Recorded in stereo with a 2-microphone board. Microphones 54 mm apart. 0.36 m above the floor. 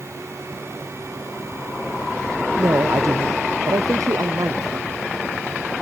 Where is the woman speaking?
75° right (ahead or behind); by 4.9 s 85° right.